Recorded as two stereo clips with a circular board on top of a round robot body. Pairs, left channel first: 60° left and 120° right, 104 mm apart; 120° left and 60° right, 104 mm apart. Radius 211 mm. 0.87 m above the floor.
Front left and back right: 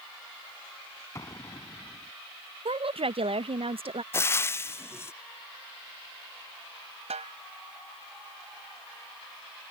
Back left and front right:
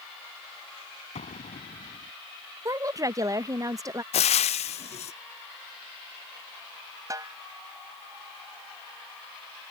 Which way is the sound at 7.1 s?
120° right.